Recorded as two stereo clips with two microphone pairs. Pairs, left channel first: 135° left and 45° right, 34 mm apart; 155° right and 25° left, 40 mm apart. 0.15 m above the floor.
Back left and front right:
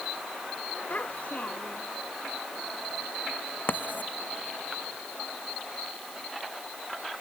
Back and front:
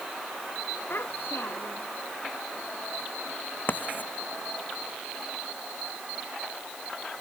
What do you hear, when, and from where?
0.9 s a child speaking: 175° left
3.7 s writing: 165° left